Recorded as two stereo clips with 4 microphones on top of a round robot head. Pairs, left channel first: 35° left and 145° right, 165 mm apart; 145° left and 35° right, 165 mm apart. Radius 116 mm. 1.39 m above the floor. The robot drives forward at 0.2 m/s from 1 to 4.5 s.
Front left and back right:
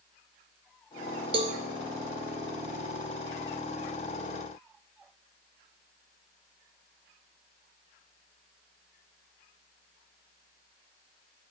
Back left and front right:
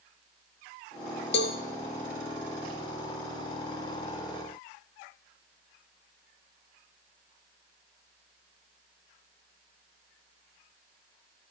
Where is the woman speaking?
No woman speaking in this recording.